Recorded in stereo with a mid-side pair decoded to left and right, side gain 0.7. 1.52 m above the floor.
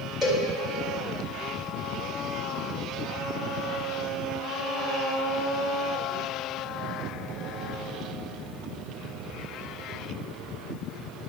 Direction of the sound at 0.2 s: 25° left.